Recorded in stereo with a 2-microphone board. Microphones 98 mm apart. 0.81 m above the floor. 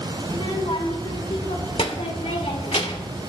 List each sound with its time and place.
0.3 s a child speaking: 60° left (ahead or behind), 3 m